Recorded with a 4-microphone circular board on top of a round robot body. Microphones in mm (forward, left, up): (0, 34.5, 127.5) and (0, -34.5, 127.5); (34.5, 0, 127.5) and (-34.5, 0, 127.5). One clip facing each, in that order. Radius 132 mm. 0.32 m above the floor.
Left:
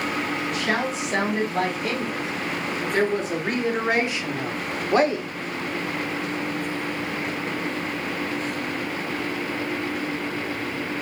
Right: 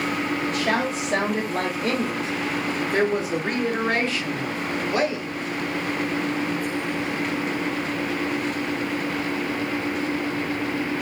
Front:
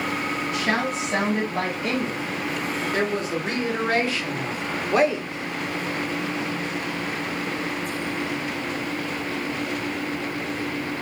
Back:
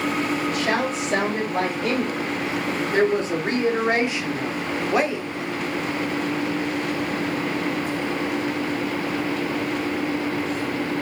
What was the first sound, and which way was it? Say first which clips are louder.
A woman speaking: right 1 dB, back 1 dB; 135° right.